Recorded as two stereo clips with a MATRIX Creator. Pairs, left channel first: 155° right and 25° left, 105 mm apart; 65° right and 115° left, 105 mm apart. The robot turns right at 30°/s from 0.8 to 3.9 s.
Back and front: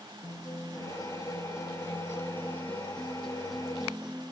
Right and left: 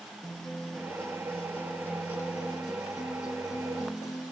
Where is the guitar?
150° right, 0.6 m; by 4.3 s 55° right, 0.6 m.